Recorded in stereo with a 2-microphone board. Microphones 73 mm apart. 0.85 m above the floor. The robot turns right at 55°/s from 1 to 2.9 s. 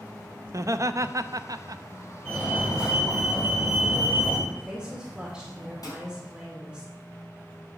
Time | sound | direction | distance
0.5 | laughter | 120° right | 0.6 m
2.2 | a fire alarm | 20° left | 6 m
4.5 | a woman speaking | 10° right (ahead or behind) | 2.5 m
5.8 | dishes clattering | 55° left (ahead or behind) | 5.5 m